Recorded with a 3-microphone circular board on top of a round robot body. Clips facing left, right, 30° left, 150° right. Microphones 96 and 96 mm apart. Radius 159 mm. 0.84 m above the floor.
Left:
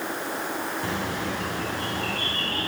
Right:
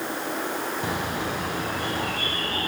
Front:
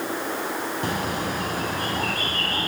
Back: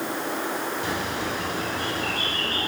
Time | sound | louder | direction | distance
0.8 | a bird | right 1 dB, front 2 dB | 15° right | 4 m